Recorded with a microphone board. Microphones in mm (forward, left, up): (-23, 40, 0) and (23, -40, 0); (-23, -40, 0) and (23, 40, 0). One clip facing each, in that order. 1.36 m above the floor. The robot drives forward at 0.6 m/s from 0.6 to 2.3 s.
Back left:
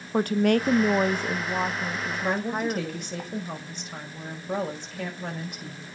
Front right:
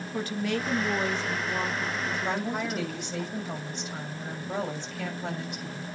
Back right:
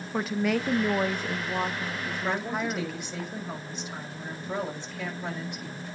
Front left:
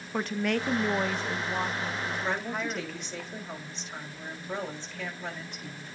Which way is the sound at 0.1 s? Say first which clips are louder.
Back left 9 dB, back right 2 dB; 155° left.